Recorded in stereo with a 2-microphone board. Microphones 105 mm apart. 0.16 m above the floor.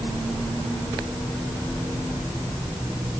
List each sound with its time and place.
Only background noise.